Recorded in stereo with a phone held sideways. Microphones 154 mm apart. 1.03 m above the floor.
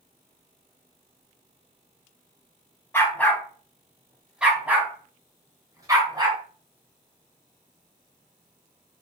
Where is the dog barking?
15° left (ahead or behind), 3.5 m; by 6.4 s 25° right (ahead or behind), 4.5 m.